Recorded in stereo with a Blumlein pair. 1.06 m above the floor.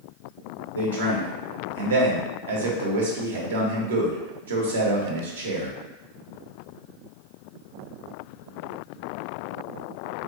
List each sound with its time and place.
0.8 s a man speaking: 65° right, 0.8 m